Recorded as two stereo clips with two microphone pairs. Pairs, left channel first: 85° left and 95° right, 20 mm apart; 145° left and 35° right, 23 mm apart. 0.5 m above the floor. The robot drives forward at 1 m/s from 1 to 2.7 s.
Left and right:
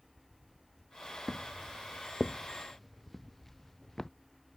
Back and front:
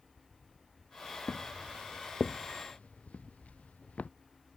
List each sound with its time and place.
1.3 s footsteps: 160° right; by 4.1 s 155° left